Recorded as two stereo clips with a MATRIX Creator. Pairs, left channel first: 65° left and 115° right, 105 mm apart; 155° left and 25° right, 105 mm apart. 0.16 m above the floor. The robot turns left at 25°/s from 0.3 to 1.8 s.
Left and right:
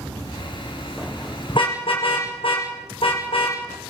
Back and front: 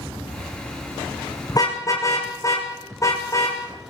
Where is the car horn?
105° left, 6 m; by 3.6 s 100° left, 6 m.